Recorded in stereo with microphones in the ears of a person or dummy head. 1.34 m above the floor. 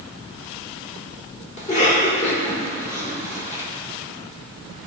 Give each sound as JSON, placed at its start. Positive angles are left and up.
{"t": 1.6, "sound": "a cough", "side_deg": 35, "distance_m": 3.0}